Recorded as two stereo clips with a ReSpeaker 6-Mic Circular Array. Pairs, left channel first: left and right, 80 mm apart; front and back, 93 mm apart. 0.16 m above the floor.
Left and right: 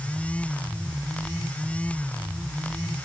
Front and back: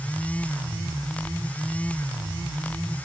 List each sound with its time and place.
Only background noise.